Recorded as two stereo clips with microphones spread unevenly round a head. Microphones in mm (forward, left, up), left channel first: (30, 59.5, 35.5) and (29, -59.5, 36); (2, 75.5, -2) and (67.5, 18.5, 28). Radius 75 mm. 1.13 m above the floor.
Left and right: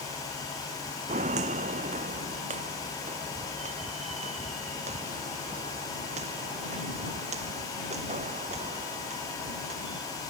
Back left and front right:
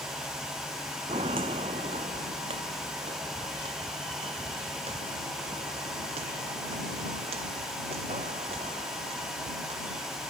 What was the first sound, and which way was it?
Footsteps, 65° right.